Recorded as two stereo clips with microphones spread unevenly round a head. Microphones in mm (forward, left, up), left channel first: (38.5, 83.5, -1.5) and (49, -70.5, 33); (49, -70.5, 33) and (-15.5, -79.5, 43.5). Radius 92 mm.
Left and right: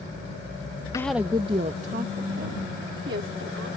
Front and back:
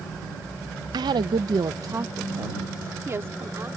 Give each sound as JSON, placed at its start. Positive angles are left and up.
{"t": 0.9, "sound": "a woman speaking", "azimuth_deg": 160}